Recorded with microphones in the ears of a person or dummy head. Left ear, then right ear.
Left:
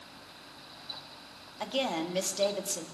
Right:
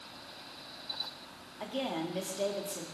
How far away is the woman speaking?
About 1.8 m.